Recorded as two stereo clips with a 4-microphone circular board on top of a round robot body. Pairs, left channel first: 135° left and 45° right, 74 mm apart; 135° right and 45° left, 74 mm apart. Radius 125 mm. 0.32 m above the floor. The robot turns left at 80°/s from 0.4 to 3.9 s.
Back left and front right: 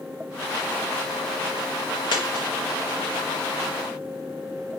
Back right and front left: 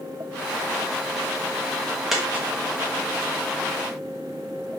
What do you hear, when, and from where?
2.1 s a dropped coin: 130° left, 1.3 m; by 2.5 s 105° left, 1.3 m